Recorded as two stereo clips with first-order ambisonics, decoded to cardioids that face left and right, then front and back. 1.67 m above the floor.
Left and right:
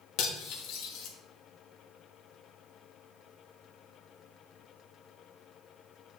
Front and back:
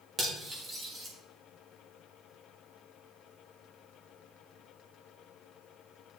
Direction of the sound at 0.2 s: 105° left.